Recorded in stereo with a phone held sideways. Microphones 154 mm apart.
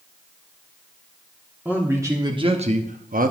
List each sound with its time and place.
1.6 s a man speaking: 10° right (ahead or behind), 1.4 m; by 3.3 s 70° right (ahead or behind), 0.9 m